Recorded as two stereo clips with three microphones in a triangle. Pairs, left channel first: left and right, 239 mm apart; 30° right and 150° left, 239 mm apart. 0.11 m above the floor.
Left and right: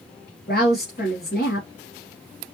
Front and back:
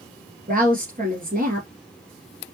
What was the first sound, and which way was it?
A woman speaking, 115° left.